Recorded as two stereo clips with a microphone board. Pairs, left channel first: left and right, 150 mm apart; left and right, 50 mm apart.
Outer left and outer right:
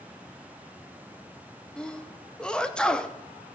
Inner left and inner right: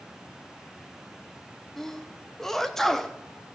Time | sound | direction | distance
1.8 | a sneeze | 5° left (ahead or behind) | 0.7 m